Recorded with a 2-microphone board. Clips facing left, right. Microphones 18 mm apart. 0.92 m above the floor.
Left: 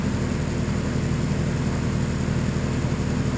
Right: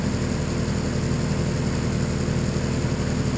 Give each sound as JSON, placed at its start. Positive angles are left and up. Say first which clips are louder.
{"t": 0.0, "sound": "an engine running", "louder": "even", "side_deg": -30}